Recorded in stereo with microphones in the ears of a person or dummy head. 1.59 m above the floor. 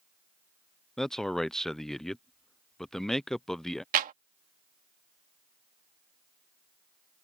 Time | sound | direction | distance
1.0 | a man speaking | 5° left (ahead or behind) | ?
3.9 | a clap | 45° right (ahead or behind) | ?